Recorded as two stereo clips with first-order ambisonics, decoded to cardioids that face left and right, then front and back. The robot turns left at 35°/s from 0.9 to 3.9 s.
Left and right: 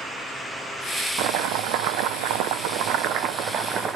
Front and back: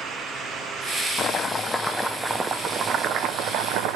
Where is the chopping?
60° right, 0.6 m; by 4.0 s 155° right, 0.6 m.